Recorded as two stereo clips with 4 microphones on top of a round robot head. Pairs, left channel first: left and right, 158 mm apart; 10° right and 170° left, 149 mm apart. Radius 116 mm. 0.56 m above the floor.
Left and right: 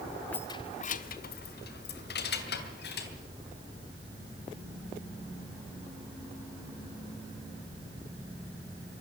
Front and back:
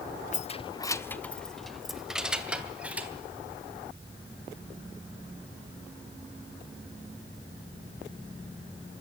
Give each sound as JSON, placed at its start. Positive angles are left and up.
{"t": 0.3, "sound": "keys jangling", "azimuth_deg": 10, "distance_m": 0.8}